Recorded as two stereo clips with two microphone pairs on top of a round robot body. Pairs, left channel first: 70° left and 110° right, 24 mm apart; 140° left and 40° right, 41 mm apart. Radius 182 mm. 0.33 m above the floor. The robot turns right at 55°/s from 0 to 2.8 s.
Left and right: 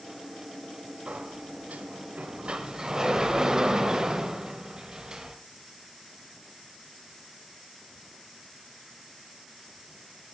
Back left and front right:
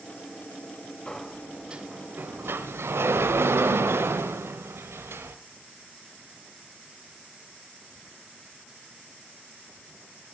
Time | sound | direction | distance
1.1 | a sliding door | 145° right | 0.7 m